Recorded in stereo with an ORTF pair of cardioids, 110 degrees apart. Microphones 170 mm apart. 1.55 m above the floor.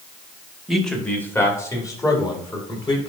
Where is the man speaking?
Straight ahead, 1.9 m; by 3.1 s 30° left, 5 m.